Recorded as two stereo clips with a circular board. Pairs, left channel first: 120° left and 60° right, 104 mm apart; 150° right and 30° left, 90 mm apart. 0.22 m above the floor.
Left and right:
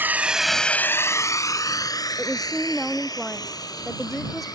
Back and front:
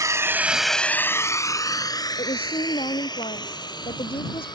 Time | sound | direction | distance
0.0 | a drone | straight ahead | ?
2.2 | a woman speaking | 150° right | ?